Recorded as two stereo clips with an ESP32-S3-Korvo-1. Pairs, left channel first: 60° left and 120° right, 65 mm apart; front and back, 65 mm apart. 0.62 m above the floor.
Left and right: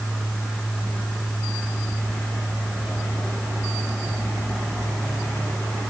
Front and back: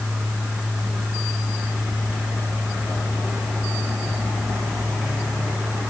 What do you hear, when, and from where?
Only background noise.